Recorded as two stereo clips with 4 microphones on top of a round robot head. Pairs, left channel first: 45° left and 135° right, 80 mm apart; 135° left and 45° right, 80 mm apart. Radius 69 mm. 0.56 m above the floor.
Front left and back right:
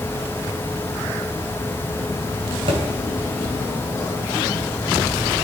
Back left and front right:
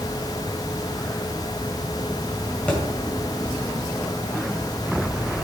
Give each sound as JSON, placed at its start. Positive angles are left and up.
{"t": 2.7, "sound": "a thud", "azimuth_deg": -145, "distance_m": 1.5}